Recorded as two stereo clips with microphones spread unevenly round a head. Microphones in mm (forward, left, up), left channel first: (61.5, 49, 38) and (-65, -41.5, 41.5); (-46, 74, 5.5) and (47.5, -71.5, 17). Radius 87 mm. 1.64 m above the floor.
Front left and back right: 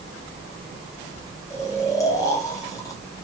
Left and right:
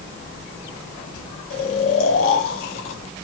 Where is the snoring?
105° left, 2 m.